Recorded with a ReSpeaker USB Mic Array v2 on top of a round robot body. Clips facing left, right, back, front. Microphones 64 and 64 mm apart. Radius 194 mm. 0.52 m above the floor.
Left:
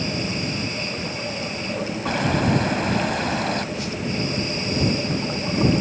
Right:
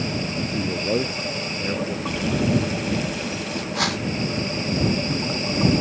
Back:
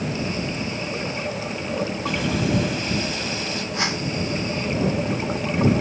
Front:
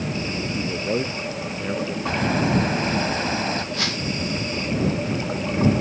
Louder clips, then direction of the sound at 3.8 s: Right 4 dB, back 2 dB; 110° right.